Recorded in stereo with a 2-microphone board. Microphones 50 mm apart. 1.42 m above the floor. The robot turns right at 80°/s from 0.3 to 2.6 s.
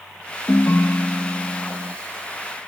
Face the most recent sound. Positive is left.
turn(degrees=-110)